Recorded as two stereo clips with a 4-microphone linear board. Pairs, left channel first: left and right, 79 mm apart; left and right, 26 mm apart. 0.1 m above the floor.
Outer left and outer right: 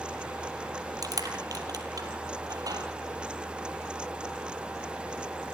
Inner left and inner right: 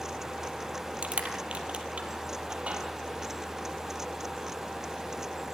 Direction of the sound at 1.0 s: 50° right (ahead or behind).